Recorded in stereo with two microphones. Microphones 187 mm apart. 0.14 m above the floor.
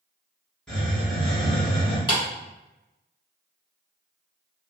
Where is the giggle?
I don't hear a giggle.